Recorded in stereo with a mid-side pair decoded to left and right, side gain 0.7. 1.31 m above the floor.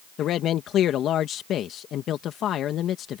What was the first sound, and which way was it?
A man speaking, 45° left.